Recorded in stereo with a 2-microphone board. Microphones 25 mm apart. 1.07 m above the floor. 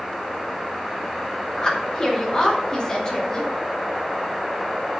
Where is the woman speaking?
30° left (ahead or behind), 2.5 m.